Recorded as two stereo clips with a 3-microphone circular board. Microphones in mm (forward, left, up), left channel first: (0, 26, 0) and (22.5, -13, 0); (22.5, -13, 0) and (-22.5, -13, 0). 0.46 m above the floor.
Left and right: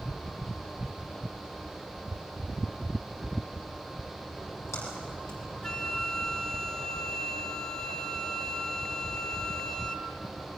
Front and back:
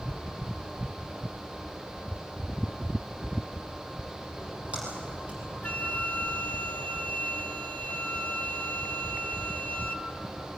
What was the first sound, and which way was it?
A splash, 120° left.